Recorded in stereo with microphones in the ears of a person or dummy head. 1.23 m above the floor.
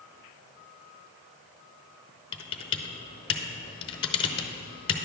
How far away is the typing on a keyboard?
About 0.8 m.